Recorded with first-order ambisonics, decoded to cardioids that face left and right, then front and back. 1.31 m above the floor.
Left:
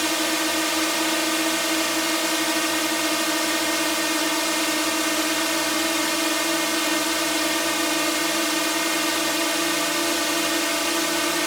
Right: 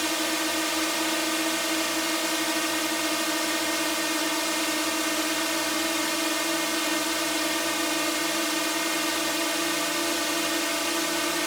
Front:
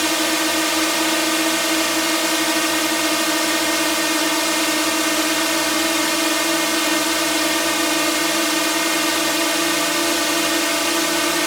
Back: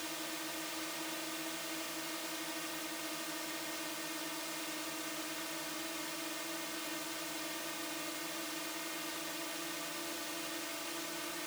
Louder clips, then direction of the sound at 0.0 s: Left 4 dB, front 23 dB; 10° left.